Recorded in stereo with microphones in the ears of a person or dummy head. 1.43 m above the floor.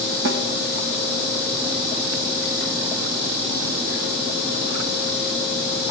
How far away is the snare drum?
About 2.5 m.